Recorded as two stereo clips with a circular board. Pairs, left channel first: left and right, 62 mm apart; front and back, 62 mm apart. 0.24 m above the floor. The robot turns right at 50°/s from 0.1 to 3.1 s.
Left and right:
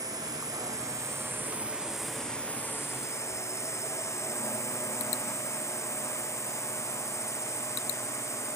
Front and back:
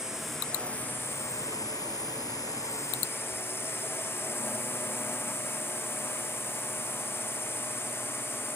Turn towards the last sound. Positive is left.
turn(degrees=50)